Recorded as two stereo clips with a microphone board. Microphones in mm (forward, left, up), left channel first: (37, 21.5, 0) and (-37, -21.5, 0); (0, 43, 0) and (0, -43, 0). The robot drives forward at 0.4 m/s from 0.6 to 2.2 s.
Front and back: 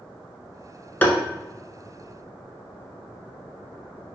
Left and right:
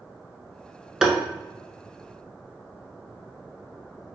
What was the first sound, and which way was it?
Tapping, 15° right.